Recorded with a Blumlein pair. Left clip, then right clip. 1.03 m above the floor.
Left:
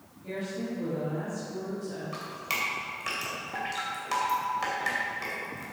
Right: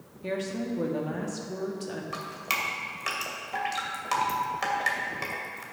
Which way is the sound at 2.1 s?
15° right.